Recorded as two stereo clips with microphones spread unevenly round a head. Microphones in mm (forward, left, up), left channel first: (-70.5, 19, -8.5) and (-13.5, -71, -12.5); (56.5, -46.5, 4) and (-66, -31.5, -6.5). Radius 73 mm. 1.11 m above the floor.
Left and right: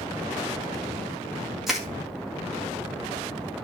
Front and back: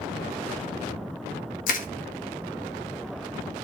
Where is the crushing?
30° left, 1.8 m.